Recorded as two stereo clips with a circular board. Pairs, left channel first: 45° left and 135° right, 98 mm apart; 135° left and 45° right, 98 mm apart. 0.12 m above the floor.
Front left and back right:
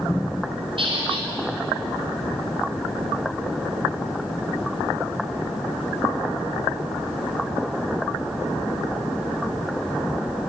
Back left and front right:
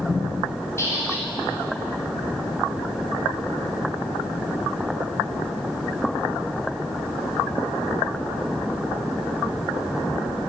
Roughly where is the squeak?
Behind.